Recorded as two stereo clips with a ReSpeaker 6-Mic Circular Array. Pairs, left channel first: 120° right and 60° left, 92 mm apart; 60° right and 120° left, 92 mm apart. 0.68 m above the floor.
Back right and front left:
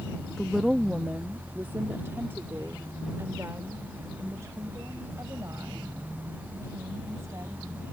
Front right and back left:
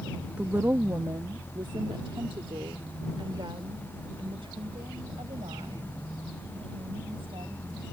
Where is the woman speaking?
170° left; by 7.8 s 115° left.